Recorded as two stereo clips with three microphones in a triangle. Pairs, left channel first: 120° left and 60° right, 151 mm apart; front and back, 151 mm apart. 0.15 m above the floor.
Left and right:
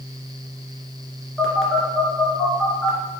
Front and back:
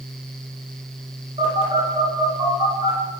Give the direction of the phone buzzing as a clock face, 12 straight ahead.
5 o'clock.